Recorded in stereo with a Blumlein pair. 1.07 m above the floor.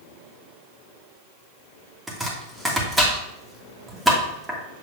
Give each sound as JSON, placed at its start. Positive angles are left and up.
{"t": 2.1, "sound": "chopping", "azimuth_deg": -5, "distance_m": 1.7}